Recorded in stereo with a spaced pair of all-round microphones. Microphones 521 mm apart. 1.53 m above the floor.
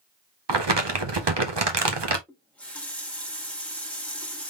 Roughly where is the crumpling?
Right.